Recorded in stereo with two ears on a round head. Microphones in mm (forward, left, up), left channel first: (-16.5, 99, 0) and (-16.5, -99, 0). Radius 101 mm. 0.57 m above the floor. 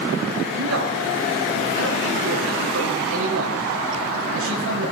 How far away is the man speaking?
About 4.5 m.